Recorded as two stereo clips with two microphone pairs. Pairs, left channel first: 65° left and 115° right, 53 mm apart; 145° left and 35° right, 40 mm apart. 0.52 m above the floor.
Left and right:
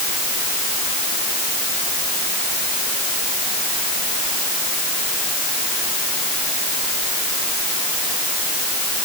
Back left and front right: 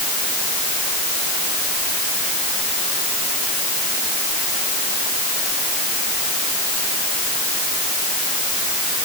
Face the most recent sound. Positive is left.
No sound to turn to.